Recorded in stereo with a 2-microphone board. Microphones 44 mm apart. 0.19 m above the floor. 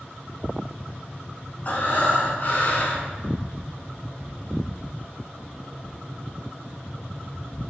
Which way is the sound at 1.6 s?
40° left (ahead or behind).